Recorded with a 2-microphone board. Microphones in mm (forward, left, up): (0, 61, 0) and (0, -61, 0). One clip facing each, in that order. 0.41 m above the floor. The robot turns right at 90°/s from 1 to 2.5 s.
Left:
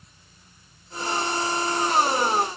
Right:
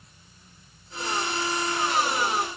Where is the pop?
No pop in this recording.